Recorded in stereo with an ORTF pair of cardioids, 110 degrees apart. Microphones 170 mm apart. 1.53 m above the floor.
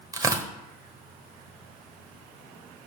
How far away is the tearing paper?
About 1.2 m.